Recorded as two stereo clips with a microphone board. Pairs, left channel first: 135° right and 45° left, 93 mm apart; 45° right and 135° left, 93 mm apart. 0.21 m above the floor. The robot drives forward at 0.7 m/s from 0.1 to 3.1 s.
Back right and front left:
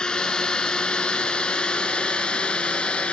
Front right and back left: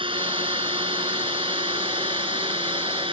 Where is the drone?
145° left; by 3.1 s 150° left.